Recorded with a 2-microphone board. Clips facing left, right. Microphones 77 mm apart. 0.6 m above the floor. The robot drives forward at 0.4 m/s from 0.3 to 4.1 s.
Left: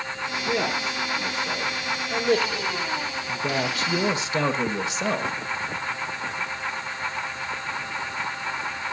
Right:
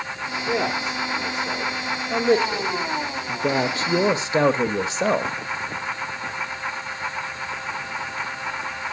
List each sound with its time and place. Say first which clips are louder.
0.5 s a man speaking: right 2 dB; 10° right (ahead or behind), 1.6 m; by 5.3 s 25° right (ahead or behind), 0.6 m